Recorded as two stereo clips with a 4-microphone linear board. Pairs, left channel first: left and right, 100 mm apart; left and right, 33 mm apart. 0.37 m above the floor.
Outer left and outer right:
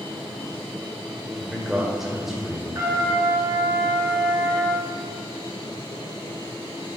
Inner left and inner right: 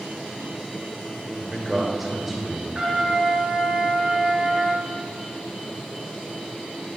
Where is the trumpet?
35° right (ahead or behind), 3 m.